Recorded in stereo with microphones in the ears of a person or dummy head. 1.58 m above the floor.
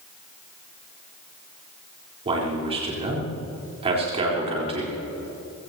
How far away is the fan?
I don't hear a fan.